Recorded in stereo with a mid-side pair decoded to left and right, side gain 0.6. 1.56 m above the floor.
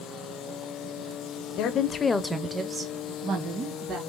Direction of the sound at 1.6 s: 60° left.